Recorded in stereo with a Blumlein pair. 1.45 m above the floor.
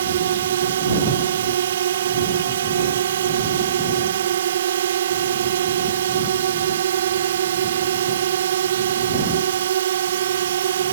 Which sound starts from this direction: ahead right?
A drone, at 0.0 s.